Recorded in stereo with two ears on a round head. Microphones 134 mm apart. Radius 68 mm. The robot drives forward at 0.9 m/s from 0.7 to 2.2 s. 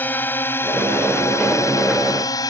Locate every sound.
0.0 s a drone: 10° left (ahead or behind); by 2.5 s 25° left (ahead or behind)